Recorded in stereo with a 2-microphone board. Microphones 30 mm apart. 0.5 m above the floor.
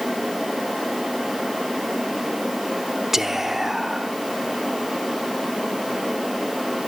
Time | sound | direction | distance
3.1 | whispering | 10° right (ahead or behind) | 0.9 m